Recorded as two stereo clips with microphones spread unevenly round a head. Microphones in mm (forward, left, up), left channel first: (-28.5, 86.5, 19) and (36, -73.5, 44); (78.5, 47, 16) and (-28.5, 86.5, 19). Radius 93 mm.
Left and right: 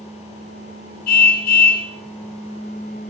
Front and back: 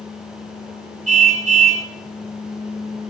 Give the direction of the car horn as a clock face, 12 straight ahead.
7 o'clock.